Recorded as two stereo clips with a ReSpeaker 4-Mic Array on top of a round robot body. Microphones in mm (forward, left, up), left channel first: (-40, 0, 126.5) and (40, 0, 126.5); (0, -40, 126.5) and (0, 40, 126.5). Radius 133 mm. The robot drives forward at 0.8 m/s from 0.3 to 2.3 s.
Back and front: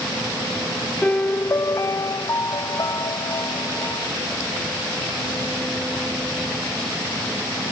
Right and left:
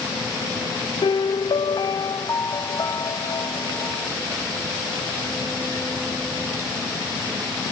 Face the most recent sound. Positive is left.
turn(degrees=-135)